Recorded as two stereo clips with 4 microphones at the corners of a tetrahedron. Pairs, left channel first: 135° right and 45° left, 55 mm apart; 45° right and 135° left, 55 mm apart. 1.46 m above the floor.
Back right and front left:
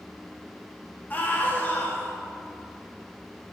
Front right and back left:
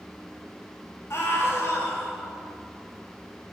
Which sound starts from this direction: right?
A scream, at 1.1 s.